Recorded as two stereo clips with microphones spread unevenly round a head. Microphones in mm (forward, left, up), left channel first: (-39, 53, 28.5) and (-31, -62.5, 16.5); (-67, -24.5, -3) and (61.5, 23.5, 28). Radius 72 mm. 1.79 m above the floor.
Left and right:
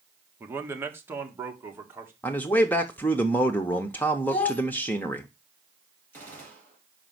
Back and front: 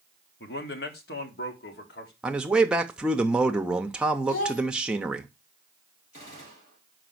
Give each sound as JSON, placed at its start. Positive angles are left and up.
{"t": 0.4, "sound": "a man speaking", "azimuth_deg": -160, "distance_m": 1.2}
{"t": 2.2, "sound": "a man speaking", "azimuth_deg": 55, "distance_m": 0.6}
{"t": 4.3, "sound": "a child speaking", "azimuth_deg": 165, "distance_m": 1.6}
{"t": 6.1, "sound": "a gunshot", "azimuth_deg": 165, "distance_m": 4.0}